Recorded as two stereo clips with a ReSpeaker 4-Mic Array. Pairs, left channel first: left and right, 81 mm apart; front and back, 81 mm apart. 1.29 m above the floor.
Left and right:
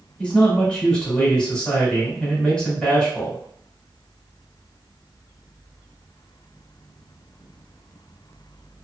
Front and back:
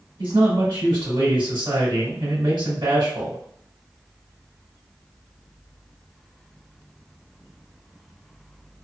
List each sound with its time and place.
0.2 s a man speaking: 170° left, 1.3 m